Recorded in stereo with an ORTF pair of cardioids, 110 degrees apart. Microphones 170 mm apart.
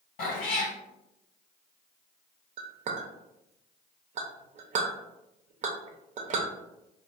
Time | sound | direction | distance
0.2 | a cat meowing | 60° left | 1.7 m
2.6 | a clink | 45° right | 0.7 m